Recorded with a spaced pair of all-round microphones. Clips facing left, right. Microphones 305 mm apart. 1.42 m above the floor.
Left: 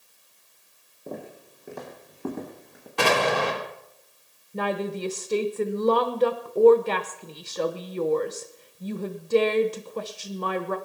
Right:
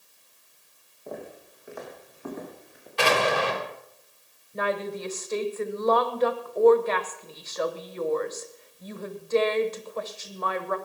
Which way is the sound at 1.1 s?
35° left (ahead or behind).